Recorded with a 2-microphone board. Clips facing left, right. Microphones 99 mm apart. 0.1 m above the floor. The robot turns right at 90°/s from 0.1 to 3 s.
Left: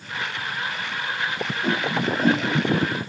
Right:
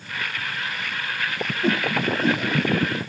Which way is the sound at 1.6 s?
20° right (ahead or behind).